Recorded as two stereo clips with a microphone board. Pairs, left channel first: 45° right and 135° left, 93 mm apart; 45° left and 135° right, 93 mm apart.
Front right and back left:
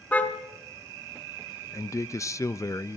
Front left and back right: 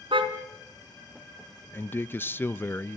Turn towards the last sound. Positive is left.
turn(degrees=-10)